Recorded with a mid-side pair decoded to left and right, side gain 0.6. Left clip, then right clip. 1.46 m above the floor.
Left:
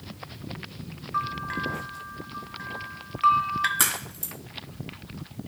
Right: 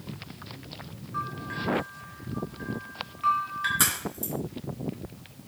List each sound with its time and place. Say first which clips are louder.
1.1 s a bell: left 5 dB; 40° left, 1.0 m
3.8 s a crack: even; 10° left, 3.5 m